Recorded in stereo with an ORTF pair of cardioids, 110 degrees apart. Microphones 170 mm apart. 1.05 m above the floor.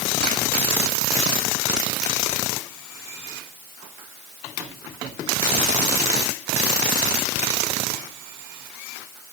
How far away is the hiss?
No hiss in this recording.